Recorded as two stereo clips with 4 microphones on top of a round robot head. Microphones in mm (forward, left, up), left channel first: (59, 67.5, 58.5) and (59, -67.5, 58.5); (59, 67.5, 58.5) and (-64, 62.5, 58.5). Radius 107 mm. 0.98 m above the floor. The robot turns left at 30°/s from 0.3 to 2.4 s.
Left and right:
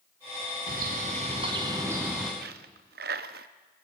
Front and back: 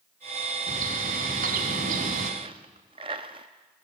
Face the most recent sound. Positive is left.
turn(degrees=-115)